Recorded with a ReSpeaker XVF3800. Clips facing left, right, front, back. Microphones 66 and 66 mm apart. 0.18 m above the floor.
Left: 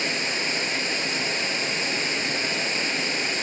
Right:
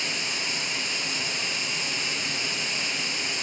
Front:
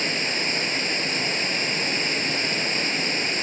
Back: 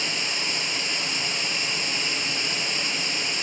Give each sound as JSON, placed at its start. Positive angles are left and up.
{"t": 0.0, "sound": "running water", "azimuth_deg": 45, "distance_m": 0.8}